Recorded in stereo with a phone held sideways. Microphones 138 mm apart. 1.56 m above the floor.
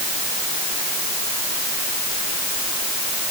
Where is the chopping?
No chopping in this recording.